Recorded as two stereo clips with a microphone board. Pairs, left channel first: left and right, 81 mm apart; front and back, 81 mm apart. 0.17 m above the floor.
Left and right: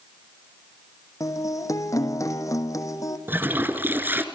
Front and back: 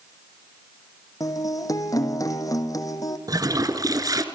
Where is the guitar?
45° left, 1.8 m.